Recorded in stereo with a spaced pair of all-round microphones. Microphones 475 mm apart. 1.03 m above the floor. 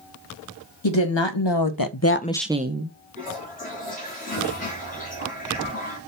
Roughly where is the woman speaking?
Left.